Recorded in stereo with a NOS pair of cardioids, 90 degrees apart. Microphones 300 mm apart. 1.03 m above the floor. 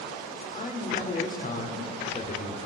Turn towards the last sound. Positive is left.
turn(degrees=30)